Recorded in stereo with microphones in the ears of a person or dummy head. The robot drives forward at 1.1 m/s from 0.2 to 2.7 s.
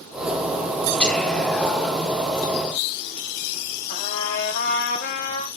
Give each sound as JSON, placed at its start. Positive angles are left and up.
{"t": 1.0, "sound": "whispering", "side_deg": 10, "distance_m": 1.3}
{"t": 3.9, "sound": "a trumpet", "side_deg": 55, "distance_m": 4.5}